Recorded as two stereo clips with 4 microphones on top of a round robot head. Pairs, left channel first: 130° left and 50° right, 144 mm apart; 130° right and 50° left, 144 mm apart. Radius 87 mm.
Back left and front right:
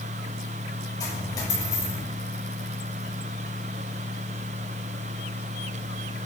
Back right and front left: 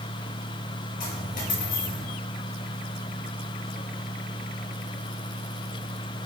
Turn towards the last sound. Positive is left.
turn(degrees=-165)